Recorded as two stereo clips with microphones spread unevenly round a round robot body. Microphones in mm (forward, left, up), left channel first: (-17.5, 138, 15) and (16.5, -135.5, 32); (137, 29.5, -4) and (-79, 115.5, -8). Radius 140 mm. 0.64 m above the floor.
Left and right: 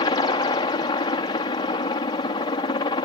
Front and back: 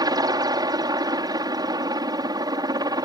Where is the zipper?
I don't hear a zipper.